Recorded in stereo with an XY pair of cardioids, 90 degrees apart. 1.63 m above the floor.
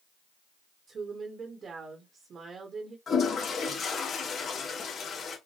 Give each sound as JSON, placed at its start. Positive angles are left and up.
{"t": 0.9, "sound": "a woman speaking", "azimuth_deg": -60, "distance_m": 1.2}
{"t": 3.1, "sound": "a toilet flushing", "azimuth_deg": 55, "distance_m": 1.5}